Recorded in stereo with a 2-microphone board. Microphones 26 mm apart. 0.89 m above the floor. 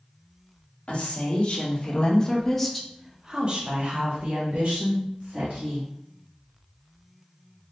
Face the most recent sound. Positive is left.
turn(degrees=-70)  # may be behind; listen again after turning